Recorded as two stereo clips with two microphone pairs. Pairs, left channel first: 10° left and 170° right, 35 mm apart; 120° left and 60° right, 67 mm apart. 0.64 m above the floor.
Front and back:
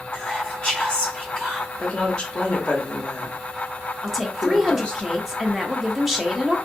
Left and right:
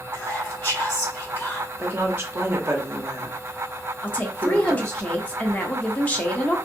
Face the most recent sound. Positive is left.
turn(degrees=115)